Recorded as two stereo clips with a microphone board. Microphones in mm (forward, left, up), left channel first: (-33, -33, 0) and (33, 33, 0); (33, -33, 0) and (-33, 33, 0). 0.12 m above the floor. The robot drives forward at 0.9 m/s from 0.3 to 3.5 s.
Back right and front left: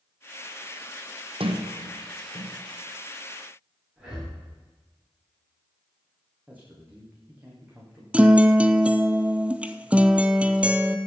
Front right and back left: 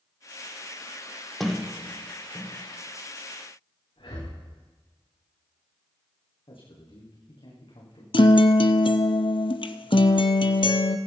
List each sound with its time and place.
1.4 s a sliding door: 45° left, 2.5 m; by 2.6 s 65° left, 1.8 m
4.0 s breathing: 35° right, 8.5 m
6.5 s a man speaking: 25° right, 7.5 m
8.1 s a guitar: 30° right, 0.9 m